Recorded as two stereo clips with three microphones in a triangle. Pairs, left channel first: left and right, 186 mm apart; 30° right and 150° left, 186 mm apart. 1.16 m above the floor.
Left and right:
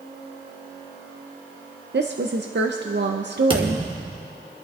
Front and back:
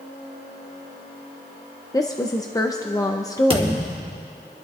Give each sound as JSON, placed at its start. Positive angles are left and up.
{"t": 1.9, "sound": "a woman speaking", "azimuth_deg": -100, "distance_m": 0.6}
{"t": 3.5, "sound": "a thud", "azimuth_deg": -150, "distance_m": 1.3}